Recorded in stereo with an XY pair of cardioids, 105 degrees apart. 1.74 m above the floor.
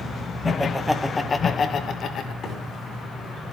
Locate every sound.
0.5 s laughter: straight ahead, 2 m; by 2.3 s 70° left, 2.5 m
2.4 s a microwave: 55° left, 6 m